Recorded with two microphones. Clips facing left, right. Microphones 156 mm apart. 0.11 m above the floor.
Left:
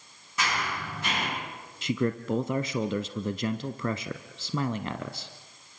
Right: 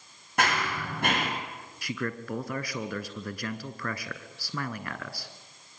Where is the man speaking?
20° left (ahead or behind), 1.1 m.